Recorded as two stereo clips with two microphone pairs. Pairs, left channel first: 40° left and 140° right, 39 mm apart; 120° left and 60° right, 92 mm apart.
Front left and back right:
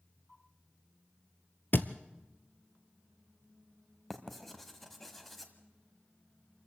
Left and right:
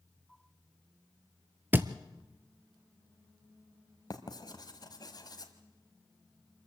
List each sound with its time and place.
1.7 s a thud: 5° left, 0.8 m
4.1 s writing: 125° left, 1.6 m